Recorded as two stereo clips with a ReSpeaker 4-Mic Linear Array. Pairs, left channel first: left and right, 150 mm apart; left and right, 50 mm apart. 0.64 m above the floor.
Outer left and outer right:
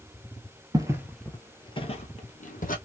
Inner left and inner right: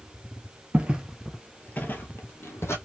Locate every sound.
0.7 s footsteps: 25° right (ahead or behind), 0.7 m; by 2.8 s 65° left (ahead or behind), 1.3 m